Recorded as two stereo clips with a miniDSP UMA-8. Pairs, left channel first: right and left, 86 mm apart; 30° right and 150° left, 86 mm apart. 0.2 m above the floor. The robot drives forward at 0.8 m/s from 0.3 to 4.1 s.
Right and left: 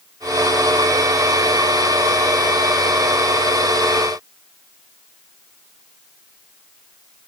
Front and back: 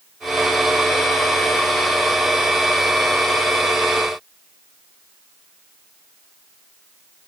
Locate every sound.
Only background noise.